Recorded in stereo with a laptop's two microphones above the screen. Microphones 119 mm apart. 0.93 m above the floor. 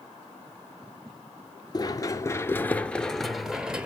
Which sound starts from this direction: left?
Running footsteps, at 1.7 s.